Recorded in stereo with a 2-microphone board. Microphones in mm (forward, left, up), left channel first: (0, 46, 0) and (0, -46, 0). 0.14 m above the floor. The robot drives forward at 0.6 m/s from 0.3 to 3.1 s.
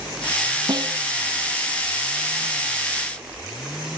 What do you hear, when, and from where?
0.7 s a snare drum: 55° right (ahead or behind)